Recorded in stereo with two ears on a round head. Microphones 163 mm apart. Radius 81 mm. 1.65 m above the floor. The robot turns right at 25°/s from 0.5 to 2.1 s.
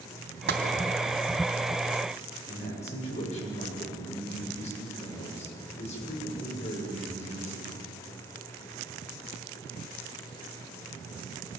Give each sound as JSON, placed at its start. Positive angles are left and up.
{"t": 0.5, "sound": "tapping", "side_deg": -60, "distance_m": 3.0}
{"t": 2.5, "sound": "a man speaking", "side_deg": 35, "distance_m": 7.5}